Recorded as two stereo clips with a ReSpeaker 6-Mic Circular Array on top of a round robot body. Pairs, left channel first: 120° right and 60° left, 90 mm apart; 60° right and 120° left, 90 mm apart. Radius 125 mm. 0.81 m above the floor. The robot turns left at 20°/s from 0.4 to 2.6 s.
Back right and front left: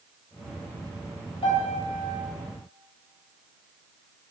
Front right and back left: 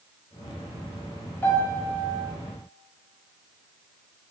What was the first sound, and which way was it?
A piano, 125° right.